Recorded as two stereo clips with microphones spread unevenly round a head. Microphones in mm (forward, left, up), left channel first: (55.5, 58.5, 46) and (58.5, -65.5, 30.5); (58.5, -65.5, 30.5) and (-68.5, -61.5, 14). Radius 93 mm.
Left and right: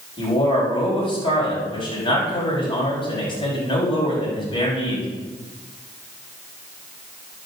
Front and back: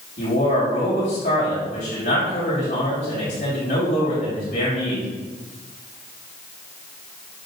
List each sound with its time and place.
0.2 s a man speaking: 40° left, 6.5 m